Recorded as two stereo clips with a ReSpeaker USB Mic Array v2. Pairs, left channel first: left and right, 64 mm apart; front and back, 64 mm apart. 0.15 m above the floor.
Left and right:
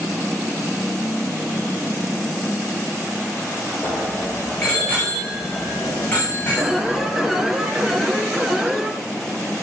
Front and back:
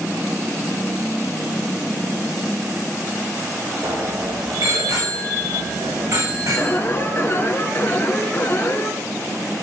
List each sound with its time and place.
3.8 s a bicycle bell: 170° left, 9.5 m; by 7.6 s 155° left, 9 m
6.6 s an alarm: 10° right, 2.5 m